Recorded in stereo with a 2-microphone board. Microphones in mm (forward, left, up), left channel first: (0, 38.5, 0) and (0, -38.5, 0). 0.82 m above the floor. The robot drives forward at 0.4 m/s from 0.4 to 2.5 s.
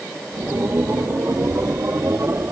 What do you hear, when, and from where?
Only background noise.